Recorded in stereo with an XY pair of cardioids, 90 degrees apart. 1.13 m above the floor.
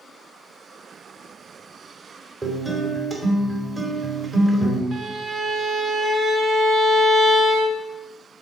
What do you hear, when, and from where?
2.4 s a guitar: 30° right, 2.5 m
4.9 s a violin: 50° right, 1.5 m